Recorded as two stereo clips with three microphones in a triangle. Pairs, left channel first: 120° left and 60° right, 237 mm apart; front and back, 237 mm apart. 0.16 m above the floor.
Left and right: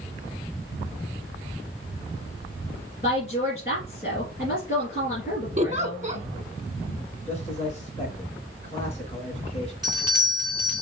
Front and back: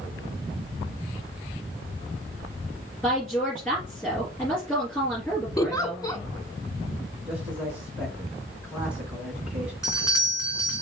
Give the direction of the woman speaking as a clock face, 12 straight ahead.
9 o'clock.